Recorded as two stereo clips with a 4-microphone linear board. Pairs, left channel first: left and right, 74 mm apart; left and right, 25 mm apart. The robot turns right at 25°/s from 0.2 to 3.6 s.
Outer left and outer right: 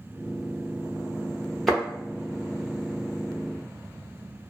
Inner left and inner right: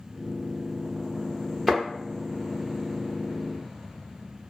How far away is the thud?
About 1.2 m.